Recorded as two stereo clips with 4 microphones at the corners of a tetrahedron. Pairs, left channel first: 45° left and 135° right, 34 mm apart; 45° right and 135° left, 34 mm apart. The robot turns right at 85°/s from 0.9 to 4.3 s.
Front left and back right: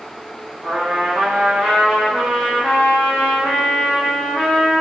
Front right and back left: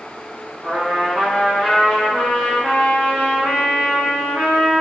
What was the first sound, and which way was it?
A trumpet, 155° right.